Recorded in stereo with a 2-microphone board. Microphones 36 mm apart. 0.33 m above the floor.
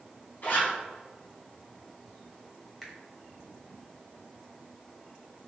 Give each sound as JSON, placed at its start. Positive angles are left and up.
{"t": 0.4, "sound": "a zipper", "side_deg": 60, "distance_m": 1.3}
{"t": 2.8, "sound": "a finger snap", "side_deg": 5, "distance_m": 1.0}